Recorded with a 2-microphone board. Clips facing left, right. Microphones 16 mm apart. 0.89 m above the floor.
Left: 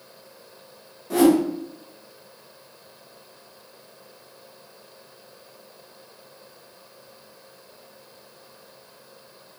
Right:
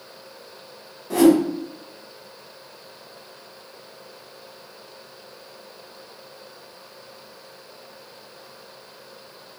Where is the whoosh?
Centre (ahead or behind), 1.5 m.